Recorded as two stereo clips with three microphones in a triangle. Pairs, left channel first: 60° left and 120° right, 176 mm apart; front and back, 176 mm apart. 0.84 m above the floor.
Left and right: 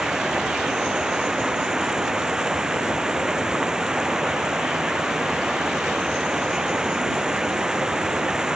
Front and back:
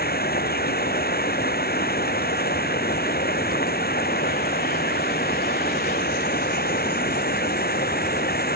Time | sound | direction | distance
0.0 | running water | 35° right | ?